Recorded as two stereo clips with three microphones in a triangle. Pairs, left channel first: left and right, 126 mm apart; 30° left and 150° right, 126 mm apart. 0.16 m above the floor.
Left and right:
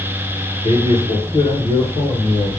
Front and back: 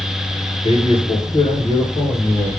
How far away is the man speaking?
About 1.9 m.